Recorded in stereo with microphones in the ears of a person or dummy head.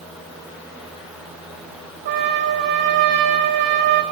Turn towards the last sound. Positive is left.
turn(degrees=-50)  # may be behind; listen again after turning